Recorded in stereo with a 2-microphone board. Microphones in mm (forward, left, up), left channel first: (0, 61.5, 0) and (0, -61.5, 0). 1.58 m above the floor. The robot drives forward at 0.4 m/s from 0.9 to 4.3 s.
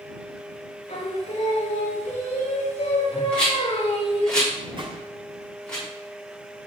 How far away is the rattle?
About 3.5 m.